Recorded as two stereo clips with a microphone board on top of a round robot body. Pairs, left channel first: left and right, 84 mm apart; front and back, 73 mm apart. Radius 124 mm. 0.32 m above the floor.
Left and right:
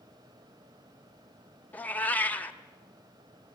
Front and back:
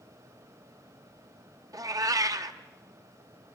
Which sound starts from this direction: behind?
A cat meowing, at 1.7 s.